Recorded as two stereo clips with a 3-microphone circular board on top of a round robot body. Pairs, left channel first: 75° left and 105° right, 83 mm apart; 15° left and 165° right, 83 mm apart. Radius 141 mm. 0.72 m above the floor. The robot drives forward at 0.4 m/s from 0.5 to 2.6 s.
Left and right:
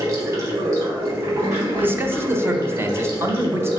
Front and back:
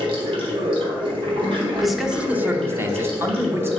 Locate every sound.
0.0 s running water: 160° right, 1.0 m; by 3.8 s 170° right, 1.8 m
1.8 s a man speaking: 70° right, 0.7 m; by 3.7 s 130° right, 0.7 m